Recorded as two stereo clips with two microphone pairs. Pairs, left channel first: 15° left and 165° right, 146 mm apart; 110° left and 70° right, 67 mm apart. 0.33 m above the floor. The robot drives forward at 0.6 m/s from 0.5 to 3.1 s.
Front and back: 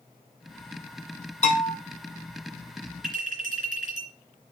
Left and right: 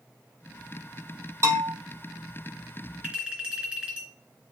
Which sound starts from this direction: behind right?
A clink, at 3.0 s.